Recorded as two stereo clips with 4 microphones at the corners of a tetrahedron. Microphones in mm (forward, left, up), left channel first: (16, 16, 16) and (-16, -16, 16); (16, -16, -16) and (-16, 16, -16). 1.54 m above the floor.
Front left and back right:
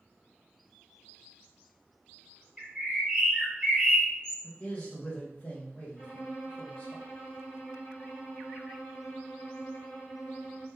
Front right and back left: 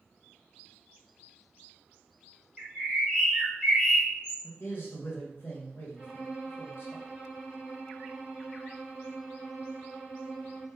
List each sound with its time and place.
2.6 s a bird: 165° right, 1.4 m
4.4 s a man speaking: 15° right, 1.1 m
6.0 s a violin: 35° left, 0.9 m